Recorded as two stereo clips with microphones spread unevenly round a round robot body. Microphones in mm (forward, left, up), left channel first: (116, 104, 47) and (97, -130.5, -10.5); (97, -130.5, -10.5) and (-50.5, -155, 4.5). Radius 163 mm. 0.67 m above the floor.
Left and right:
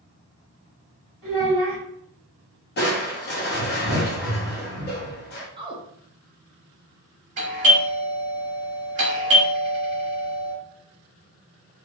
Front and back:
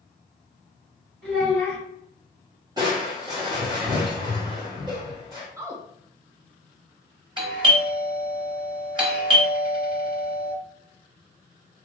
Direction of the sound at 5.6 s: 100° right.